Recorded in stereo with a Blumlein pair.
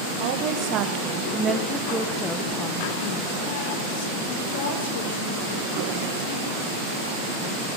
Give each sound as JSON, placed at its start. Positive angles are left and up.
{"t": 0.2, "sound": "a woman speaking", "azimuth_deg": -50, "distance_m": 1.4}